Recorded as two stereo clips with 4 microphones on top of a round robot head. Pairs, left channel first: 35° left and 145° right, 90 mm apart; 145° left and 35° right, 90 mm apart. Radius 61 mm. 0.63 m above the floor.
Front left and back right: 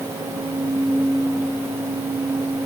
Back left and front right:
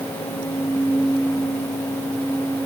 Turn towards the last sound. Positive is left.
No sound to turn to.